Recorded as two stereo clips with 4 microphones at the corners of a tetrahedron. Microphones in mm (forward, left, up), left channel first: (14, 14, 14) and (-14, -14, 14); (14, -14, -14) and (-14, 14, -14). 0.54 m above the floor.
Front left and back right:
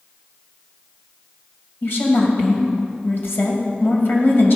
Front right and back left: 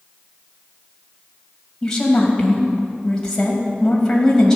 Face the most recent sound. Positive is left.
turn(degrees=25)